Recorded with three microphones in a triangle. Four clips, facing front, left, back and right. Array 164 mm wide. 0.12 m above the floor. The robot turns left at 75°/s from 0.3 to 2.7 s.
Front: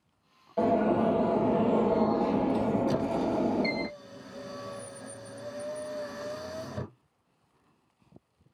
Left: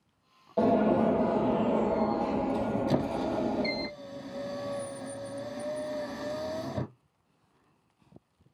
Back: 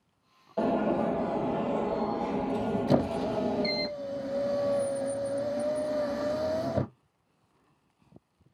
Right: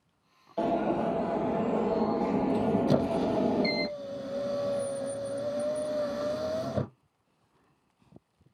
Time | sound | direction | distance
0.6 | an alarm | 85° left | 3.5 m
2.9 | a squeak | 155° right | 0.8 m